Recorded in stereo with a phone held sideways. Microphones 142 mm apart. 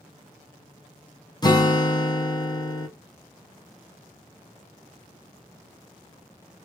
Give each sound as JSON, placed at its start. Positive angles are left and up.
{"t": 1.4, "sound": "a guitar", "side_deg": 30, "distance_m": 0.5}